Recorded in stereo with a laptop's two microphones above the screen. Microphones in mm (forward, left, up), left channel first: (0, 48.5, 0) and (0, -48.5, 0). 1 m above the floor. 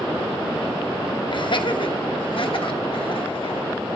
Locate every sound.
1.3 s laughter: 55° left (ahead or behind), 0.9 m; by 3.7 s 60° left (ahead or behind), 2 m